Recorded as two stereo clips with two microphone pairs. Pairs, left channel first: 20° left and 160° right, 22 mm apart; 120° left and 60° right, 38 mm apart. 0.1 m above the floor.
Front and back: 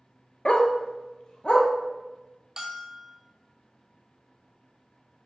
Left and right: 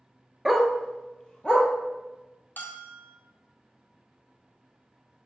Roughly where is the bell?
Behind left.